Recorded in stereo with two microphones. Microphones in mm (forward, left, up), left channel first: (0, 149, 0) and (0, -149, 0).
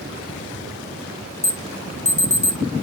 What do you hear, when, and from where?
1.4 s an alarm: 20° left (ahead or behind), 0.9 m